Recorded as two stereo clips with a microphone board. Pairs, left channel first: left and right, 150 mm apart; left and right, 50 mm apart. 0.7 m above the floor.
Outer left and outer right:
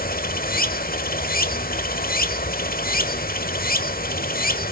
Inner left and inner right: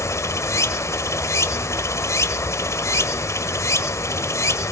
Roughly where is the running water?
Left.